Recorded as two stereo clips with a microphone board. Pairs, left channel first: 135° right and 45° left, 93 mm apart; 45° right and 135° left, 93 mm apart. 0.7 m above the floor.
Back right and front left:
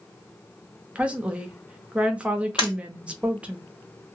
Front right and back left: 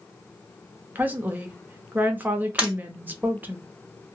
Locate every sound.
0.9 s a woman speaking: 100° left, 0.6 m
2.6 s breaking glass: 150° right, 1.7 m